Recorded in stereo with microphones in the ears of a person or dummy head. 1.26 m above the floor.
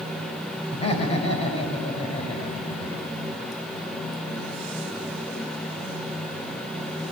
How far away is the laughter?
About 5.5 m.